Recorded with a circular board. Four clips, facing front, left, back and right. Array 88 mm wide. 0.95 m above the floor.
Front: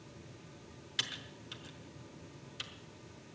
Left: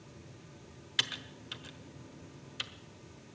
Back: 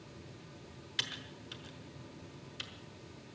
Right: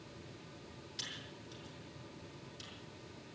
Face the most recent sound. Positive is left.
turn(degrees=95)